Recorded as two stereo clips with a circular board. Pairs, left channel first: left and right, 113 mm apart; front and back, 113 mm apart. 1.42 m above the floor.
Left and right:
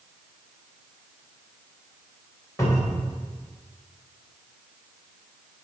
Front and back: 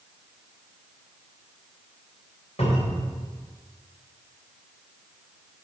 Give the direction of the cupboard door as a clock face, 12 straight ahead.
11 o'clock.